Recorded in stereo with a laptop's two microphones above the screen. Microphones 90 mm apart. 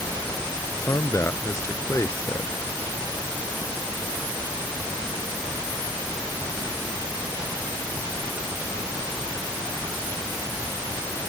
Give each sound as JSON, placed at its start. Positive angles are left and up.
{"t": 0.7, "sound": "a man speaking", "side_deg": 30}